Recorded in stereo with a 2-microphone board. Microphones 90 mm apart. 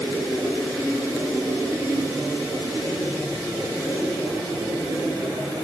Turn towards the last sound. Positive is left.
No sound to turn to.